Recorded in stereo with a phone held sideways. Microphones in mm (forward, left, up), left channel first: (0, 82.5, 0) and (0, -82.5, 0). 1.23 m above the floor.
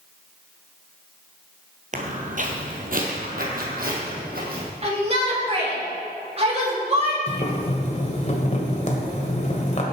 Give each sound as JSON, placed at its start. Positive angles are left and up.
{"t": 1.9, "sound": "footsteps", "side_deg": -50, "distance_m": 1.8}
{"t": 4.8, "sound": "a shout", "side_deg": -40, "distance_m": 3.0}
{"t": 7.3, "sound": "boiling", "side_deg": 45, "distance_m": 1.8}